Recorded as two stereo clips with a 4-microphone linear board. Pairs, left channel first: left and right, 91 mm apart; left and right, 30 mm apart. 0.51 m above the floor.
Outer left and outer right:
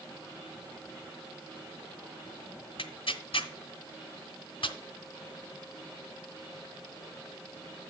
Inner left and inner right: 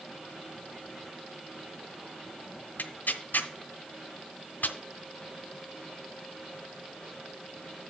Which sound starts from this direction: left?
Tearing paper, at 2.8 s.